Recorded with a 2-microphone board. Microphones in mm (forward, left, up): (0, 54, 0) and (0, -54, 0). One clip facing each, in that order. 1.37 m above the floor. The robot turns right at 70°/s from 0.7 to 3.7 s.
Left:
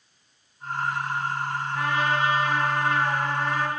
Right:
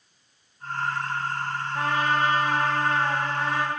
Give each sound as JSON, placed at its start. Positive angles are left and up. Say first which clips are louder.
{"t": 1.8, "sound": "a trumpet", "louder": "right 1 dB", "azimuth_deg": -135, "distance_m": 1.4}